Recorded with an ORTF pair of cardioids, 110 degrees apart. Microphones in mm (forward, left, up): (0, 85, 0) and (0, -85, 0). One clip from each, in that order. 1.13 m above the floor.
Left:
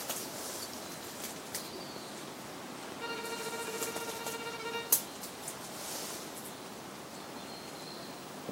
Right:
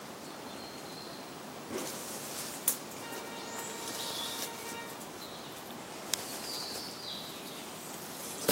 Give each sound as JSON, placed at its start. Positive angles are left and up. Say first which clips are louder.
{"t": 3.0, "sound": "a violin", "louder": "left 8 dB", "azimuth_deg": 50, "distance_m": 1.1}